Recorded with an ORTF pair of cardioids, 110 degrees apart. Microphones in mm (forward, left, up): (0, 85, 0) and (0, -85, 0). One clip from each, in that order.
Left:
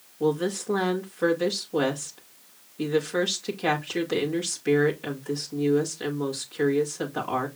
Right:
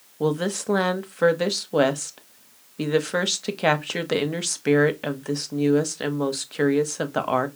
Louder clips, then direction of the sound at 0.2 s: Right 1 dB; 50° right.